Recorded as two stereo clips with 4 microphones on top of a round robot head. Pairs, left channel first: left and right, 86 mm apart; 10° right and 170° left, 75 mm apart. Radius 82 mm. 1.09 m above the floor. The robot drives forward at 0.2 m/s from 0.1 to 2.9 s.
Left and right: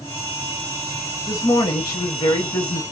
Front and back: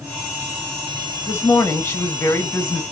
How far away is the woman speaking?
About 1.2 m.